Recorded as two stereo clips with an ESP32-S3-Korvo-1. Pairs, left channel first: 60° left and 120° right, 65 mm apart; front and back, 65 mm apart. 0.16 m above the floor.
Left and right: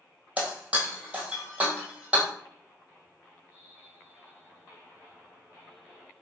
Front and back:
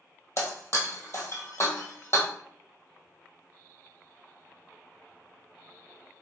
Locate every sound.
0.4 s breaking glass: 50° right, 1.5 m